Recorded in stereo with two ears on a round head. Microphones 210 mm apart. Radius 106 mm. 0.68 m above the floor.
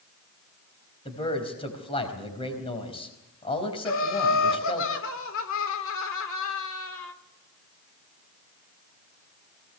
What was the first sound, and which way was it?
A man speaking, 25° left (ahead or behind).